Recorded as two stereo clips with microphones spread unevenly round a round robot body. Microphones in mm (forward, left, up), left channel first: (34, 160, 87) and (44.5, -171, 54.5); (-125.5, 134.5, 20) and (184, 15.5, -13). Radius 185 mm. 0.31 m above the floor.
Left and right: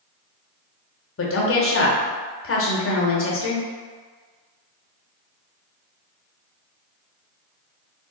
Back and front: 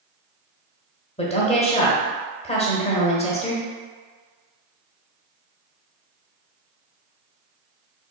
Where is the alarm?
I don't hear an alarm.